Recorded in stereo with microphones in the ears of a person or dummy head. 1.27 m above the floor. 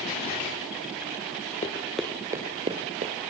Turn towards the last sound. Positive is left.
turn(degrees=-45)  # may be behind; listen again after turning